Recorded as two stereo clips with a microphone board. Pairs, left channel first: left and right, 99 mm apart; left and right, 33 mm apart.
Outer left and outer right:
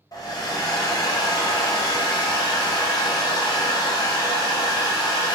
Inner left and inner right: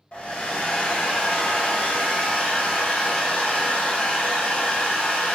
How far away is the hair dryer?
About 0.7 m.